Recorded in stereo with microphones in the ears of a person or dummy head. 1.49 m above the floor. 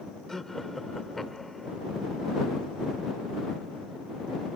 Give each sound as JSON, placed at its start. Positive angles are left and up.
{"t": 0.3, "sound": "laughter", "side_deg": 5}